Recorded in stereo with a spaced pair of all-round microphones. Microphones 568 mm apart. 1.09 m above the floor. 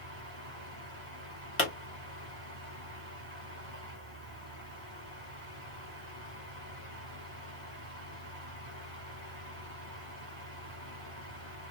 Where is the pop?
25° left (ahead or behind), 1.4 m.